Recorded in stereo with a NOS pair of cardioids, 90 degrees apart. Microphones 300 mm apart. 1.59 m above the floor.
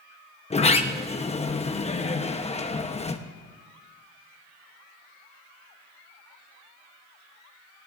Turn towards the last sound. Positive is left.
turn(degrees=20)